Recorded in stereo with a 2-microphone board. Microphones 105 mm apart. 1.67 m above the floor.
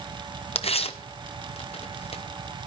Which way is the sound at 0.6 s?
70° left (ahead or behind).